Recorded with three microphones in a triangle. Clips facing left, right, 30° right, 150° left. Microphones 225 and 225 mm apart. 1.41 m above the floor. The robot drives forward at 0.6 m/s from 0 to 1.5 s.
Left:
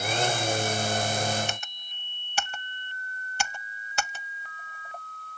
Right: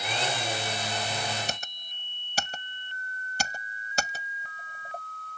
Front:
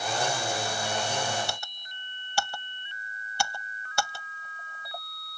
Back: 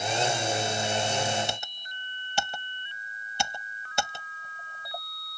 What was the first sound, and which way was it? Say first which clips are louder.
Typing on a keyboard: even, back 2 dB; 140° right.